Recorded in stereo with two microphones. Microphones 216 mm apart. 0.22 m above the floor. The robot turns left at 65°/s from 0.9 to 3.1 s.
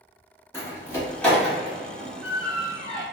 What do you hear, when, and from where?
0.5 s a door slam: 10° left (ahead or behind), 1.0 m; by 3.0 s 20° right (ahead or behind), 1.0 m